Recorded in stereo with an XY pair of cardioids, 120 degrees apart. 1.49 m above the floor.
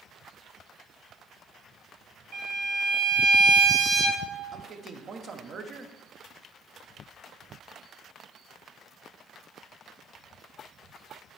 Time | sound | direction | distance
2.3 | a violin | 55° right | 2.5 m
4.5 | a man speaking | 45° right | 1.1 m